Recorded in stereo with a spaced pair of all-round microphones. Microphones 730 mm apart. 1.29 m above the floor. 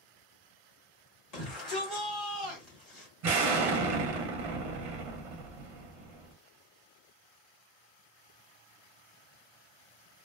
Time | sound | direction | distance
1.3 | a shout | 60° left (ahead or behind) | 1.5 m
3.2 | an explosion | 50° right (ahead or behind) | 0.6 m